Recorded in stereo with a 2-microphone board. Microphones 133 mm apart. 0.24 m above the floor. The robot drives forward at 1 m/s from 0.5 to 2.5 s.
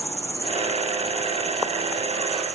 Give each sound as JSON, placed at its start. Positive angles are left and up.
{"t": 0.0, "sound": "an insect", "side_deg": 20}